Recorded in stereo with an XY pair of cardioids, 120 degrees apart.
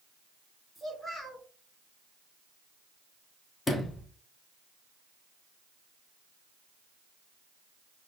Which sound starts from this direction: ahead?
A child speaking, at 0.8 s.